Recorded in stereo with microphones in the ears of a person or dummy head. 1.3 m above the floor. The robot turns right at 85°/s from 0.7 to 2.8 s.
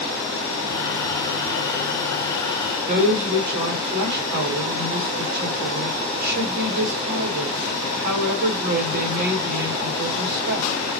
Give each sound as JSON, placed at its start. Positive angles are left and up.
{"t": 2.9, "sound": "a woman speaking", "side_deg": -50, "distance_m": 1.2}